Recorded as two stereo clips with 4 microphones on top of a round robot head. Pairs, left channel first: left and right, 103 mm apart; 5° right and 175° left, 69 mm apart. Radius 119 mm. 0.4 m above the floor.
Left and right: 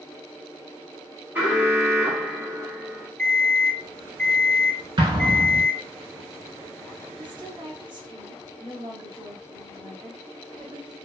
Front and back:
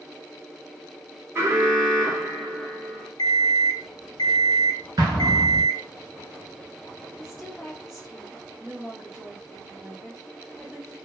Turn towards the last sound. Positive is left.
turn(degrees=-100)